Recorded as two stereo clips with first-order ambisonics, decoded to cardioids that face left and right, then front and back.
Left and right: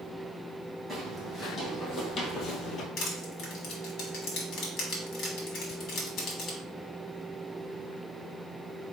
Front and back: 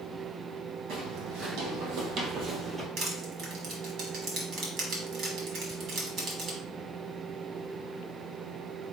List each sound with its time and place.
0.9 s footsteps: 165° left, 2 m; by 2.9 s 105° left, 1.0 m
3.0 s crushing: 135° left, 1.6 m